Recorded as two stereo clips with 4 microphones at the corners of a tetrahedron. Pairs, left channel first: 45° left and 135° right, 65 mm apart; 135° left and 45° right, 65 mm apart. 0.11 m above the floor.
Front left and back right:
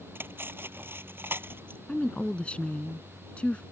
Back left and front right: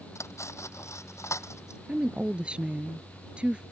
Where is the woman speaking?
Straight ahead.